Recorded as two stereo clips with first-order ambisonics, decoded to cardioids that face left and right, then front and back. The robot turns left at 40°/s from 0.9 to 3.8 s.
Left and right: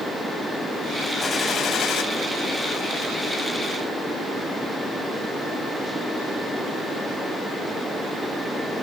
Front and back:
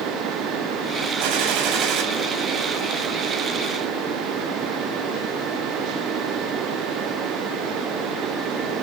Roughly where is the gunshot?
Behind.